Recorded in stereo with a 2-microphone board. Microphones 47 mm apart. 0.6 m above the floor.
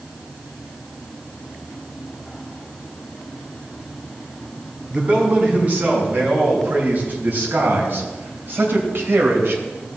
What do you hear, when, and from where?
4.9 s a man speaking: 30° right (ahead or behind), 5 m; by 9.6 s 55° right (ahead or behind), 2.5 m